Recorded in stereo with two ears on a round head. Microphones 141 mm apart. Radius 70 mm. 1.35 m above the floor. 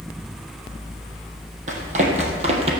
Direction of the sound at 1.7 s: 50° right (ahead or behind).